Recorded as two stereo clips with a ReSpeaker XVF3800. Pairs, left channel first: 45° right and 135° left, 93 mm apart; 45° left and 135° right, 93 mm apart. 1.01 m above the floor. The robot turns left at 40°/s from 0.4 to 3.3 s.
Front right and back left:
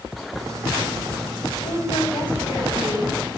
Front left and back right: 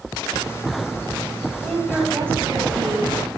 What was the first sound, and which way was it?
A woman speaking, 40° right.